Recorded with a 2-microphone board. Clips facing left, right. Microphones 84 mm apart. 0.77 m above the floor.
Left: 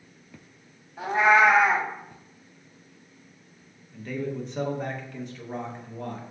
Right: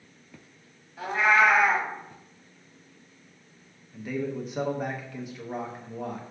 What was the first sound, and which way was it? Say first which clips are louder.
A cat meowing: left 3 dB; 25° left (ahead or behind).